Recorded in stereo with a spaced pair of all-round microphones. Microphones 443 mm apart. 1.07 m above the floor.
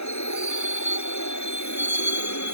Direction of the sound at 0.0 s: 40° left (ahead or behind).